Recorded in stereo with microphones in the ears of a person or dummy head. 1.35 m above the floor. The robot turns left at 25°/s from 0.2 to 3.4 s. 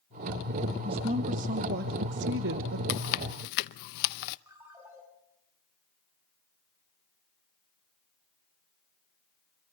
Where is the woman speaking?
25° right, 1.1 m; by 2.8 s 75° right, 1.1 m.